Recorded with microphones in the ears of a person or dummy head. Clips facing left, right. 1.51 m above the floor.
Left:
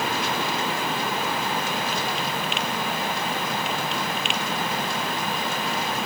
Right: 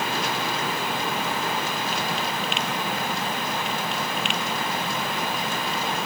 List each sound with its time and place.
Only background noise.